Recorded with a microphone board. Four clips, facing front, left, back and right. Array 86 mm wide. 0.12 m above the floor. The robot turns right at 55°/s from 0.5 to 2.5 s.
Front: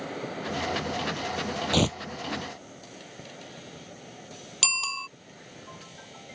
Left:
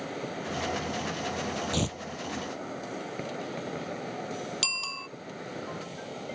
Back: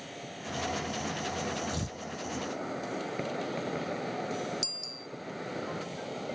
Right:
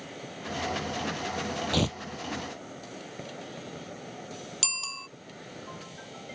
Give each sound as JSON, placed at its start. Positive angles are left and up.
{"t": 0.0, "sound": "an insect", "azimuth_deg": 40}
{"t": 1.7, "sound": "tearing paper", "azimuth_deg": -20}
{"t": 4.6, "sound": "a bicycle bell", "azimuth_deg": 10}